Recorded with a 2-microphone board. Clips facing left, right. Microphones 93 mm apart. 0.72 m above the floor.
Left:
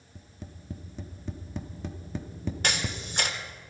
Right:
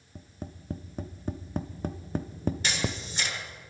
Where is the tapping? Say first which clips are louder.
Right 5 dB; 45° right (ahead or behind), 0.7 m.